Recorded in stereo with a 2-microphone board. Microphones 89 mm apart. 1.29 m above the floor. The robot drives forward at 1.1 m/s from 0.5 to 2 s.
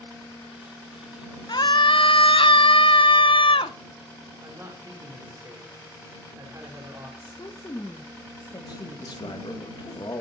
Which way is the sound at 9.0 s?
60° left (ahead or behind).